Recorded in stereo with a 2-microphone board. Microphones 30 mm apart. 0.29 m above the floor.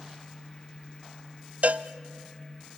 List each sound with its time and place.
1.6 s a cowbell: 55° right (ahead or behind), 0.6 m